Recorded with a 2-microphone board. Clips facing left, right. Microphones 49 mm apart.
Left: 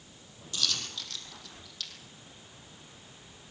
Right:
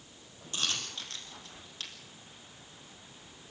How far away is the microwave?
No microwave in this recording.